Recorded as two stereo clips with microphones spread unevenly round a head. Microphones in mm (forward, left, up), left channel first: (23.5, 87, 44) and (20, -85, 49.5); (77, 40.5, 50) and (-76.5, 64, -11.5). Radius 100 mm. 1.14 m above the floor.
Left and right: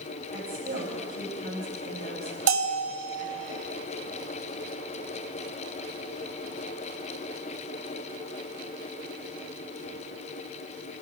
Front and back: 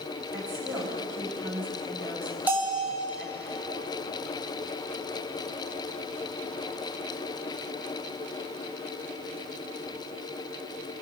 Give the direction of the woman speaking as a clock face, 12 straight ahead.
5 o'clock.